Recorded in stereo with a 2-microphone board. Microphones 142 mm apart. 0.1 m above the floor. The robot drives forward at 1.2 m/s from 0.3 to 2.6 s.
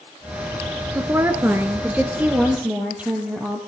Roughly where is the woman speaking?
Centre.